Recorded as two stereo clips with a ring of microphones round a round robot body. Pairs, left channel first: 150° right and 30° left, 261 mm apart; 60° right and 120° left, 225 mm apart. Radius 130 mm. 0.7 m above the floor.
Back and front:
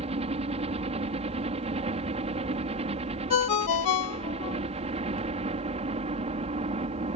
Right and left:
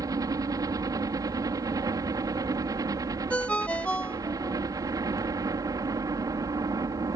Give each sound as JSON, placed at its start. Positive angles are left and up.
{"t": 0.0, "sound": "a helicopter", "azimuth_deg": 65}
{"t": 3.3, "sound": "a ringtone", "azimuth_deg": -145}